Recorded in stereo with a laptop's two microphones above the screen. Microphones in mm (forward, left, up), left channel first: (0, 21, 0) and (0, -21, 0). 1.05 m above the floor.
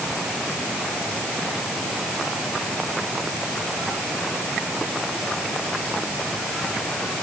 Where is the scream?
I don't hear a scream.